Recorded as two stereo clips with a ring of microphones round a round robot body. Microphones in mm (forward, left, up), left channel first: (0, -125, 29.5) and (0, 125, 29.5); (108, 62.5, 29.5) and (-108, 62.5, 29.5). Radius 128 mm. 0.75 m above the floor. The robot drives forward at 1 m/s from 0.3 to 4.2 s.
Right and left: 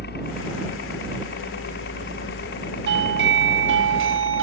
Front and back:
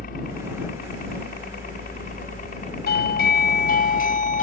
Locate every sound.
0.0 s a helicopter: 50° right; by 4.4 s 55° right
2.9 s a doorbell: 45° left; by 4.4 s 50° left